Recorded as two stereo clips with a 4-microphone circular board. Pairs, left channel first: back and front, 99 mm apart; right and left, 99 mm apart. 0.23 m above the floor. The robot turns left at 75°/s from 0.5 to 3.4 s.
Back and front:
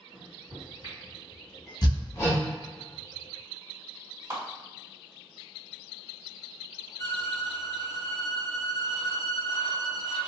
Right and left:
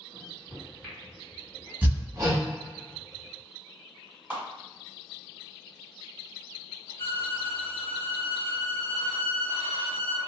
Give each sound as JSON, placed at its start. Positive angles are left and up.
{"t": 0.1, "sound": "a microwave", "azimuth_deg": 5, "distance_m": 1.8}
{"t": 1.8, "sound": "hammering", "azimuth_deg": 155, "distance_m": 0.8}
{"t": 4.3, "sound": "a clap", "azimuth_deg": 30, "distance_m": 1.4}
{"t": 7.0, "sound": "a violin", "azimuth_deg": -145, "distance_m": 0.7}